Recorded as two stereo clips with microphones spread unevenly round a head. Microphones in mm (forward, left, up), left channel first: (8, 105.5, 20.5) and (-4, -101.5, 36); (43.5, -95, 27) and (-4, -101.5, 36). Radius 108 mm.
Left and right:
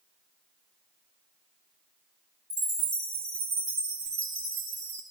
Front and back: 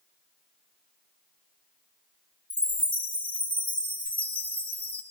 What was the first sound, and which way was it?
A chime, 55° right.